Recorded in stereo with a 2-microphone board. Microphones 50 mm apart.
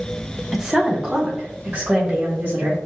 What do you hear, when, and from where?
0.5 s a woman speaking: centre (ahead or behind), 0.7 m; by 2.8 s 30° right (ahead or behind), 2 m